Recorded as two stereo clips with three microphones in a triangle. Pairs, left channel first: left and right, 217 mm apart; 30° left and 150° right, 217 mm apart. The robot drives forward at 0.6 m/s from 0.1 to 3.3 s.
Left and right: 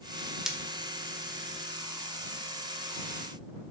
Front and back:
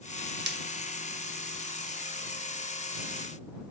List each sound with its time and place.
0.5 s breaking glass: straight behind, 1.0 m